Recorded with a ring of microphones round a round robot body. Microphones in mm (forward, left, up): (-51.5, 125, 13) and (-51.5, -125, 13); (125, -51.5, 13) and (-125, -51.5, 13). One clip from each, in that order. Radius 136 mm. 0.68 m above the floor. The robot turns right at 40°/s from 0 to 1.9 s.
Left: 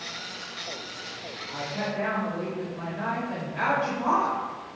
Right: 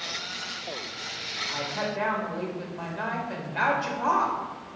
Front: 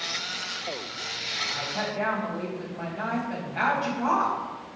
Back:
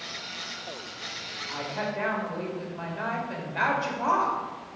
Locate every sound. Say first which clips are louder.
1.5 s a woman speaking: left 2 dB, front 2 dB; 140° right, 2.5 m; by 4.4 s 125° right, 2.5 m